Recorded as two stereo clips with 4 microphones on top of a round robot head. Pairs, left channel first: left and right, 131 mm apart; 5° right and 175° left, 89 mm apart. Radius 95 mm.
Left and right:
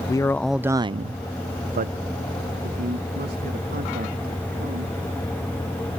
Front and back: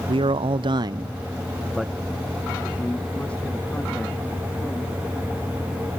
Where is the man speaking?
150° left; by 4.9 s 80° right.